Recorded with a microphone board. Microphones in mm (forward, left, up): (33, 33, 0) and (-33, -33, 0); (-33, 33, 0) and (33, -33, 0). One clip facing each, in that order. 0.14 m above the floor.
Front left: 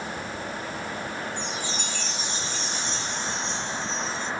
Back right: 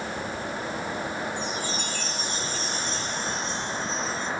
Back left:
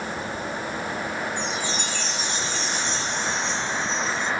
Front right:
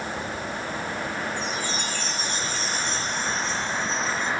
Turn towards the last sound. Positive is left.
turn(degrees=-90)